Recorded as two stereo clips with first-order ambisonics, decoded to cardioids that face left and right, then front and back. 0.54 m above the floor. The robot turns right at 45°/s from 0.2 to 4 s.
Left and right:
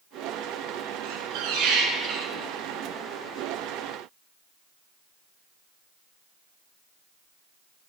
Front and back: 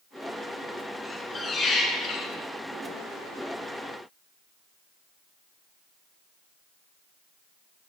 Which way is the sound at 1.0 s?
90° right.